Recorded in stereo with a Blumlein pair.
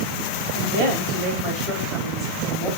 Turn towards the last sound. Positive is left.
turn(degrees=-20)